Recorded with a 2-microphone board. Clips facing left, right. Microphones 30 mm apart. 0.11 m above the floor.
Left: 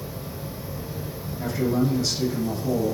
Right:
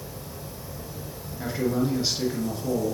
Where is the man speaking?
20° right (ahead or behind), 1.6 m.